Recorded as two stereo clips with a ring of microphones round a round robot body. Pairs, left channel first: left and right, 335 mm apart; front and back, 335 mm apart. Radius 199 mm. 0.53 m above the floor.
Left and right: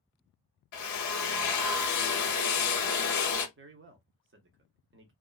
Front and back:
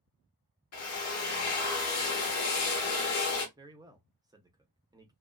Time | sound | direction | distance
0.7 | a drill | 50° left | 0.8 m
3.6 | a man speaking | 110° right | 0.8 m